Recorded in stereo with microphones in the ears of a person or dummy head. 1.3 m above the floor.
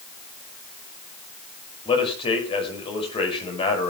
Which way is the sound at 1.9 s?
30° left (ahead or behind).